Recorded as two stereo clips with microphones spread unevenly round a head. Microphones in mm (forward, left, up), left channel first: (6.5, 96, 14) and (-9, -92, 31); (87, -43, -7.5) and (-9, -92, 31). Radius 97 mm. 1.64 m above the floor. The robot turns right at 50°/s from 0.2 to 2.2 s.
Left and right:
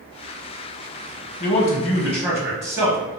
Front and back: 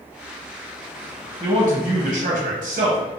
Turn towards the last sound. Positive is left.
turn(degrees=-170)